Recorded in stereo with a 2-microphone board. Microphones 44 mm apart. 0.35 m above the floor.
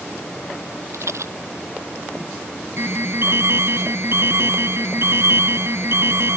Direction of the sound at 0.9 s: 80° right.